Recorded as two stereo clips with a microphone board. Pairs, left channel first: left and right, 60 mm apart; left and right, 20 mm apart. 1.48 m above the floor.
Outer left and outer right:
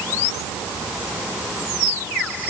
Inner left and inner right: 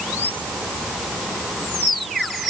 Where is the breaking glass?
No breaking glass in this recording.